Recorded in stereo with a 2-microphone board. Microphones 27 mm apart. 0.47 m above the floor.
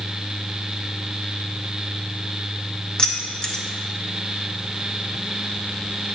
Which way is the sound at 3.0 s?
30° left (ahead or behind).